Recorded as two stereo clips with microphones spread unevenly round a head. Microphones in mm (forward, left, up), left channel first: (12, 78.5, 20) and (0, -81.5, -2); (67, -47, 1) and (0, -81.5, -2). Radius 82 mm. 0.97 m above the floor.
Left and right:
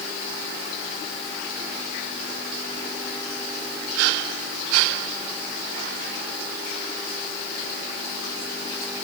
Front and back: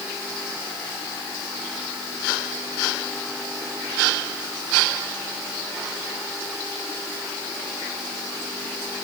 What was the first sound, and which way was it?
Only background noise.